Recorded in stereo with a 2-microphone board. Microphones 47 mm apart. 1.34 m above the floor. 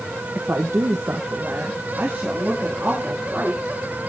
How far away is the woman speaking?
About 0.8 m.